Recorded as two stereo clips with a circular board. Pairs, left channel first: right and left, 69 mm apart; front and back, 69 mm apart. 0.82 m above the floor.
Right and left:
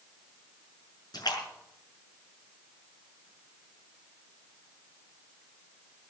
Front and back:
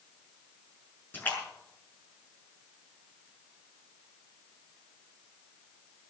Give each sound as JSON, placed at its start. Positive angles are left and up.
{"t": 1.1, "sound": "a splash", "azimuth_deg": -65, "distance_m": 6.0}